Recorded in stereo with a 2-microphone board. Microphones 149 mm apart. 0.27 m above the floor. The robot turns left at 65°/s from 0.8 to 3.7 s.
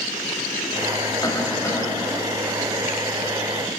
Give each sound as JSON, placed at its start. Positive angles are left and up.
{"t": 1.2, "sound": "a cough", "side_deg": 25, "distance_m": 1.2}